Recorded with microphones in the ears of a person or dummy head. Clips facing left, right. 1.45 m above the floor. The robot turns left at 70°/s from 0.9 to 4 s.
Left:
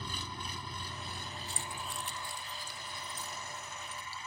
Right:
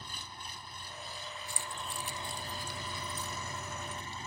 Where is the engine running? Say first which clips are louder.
Left 6 dB; 75° left; by 4.3 s 145° right.